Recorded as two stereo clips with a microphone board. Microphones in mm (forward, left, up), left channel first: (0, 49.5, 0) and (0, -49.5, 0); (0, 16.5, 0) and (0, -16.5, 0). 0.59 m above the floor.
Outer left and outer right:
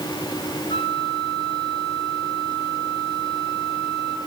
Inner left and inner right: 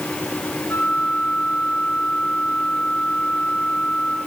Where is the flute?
75° left (ahead or behind), 2 m.